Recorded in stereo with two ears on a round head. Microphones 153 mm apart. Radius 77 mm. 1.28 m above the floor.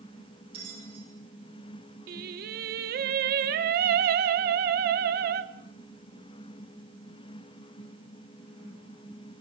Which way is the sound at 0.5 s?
35° right (ahead or behind).